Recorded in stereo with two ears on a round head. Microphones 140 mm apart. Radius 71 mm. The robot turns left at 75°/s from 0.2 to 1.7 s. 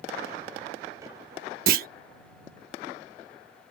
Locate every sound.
1.7 s a clunk: 55° right (ahead or behind); by 1.9 s 60° right (ahead or behind)